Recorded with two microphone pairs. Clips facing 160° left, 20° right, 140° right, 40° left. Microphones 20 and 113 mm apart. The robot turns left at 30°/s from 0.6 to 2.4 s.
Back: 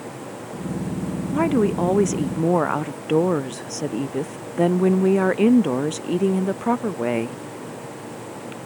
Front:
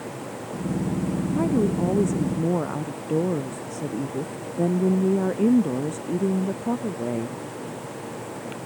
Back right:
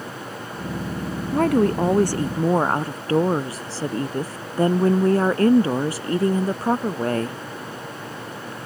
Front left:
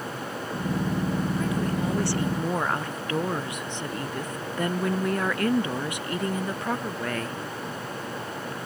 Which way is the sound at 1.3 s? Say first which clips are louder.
Back 4 dB, back right 9 dB; 160° right.